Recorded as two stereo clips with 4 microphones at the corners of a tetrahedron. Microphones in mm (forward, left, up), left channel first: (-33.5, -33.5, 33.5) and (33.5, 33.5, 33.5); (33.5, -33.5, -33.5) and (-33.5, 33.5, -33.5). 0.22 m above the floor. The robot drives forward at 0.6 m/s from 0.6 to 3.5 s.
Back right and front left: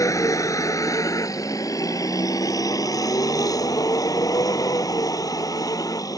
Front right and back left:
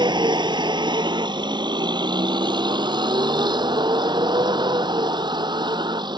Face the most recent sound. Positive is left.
turn(degrees=175)